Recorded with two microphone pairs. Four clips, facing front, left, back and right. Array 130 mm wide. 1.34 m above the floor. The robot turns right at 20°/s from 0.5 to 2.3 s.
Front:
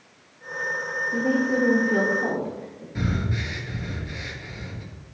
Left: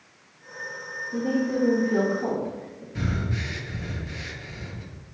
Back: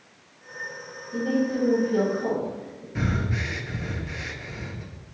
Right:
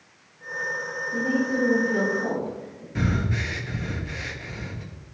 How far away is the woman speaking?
About 1.7 m.